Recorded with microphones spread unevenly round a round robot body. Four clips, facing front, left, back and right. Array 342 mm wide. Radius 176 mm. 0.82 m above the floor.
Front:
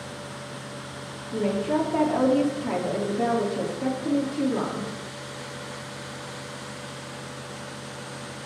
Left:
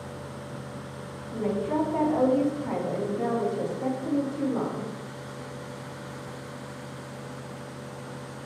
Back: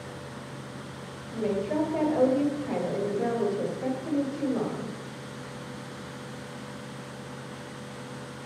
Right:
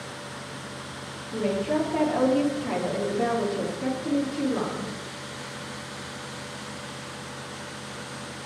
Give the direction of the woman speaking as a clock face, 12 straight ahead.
1 o'clock.